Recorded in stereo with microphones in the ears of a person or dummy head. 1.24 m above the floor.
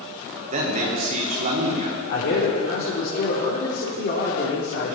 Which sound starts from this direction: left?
A man speaking, at 2.1 s.